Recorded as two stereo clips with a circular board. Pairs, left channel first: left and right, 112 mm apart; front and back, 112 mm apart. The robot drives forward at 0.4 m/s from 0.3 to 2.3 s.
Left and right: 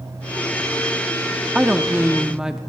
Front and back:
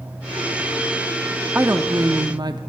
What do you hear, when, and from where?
1.6 s a woman speaking: 155° right, 0.6 m; by 2.6 s 170° right, 0.8 m